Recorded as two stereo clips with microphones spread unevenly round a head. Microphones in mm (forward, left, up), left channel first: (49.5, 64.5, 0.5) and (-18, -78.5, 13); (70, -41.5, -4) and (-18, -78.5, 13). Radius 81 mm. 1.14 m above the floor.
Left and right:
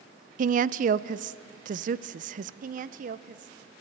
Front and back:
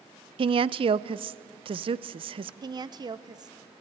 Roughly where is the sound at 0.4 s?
Behind right.